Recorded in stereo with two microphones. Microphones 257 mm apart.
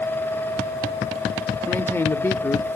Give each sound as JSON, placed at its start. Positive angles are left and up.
{"t": 1.7, "sound": "a man speaking", "side_deg": 10, "distance_m": 0.9}